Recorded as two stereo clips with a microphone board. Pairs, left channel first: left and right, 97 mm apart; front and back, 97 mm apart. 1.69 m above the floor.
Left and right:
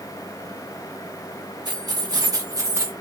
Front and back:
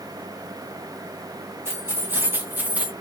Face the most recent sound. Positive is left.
turn(degrees=-110)